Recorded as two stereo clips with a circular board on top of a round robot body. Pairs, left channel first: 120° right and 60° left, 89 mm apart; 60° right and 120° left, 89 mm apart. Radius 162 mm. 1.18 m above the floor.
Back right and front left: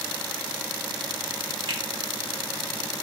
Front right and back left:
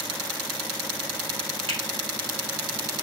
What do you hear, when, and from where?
1.7 s a finger snap: 95° left, 0.7 m